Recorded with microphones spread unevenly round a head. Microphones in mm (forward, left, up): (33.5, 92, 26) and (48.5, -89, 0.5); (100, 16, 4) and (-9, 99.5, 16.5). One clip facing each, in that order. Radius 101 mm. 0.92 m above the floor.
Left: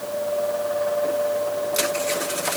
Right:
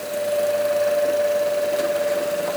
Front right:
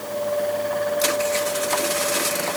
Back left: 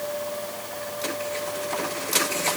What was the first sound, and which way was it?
Only background noise.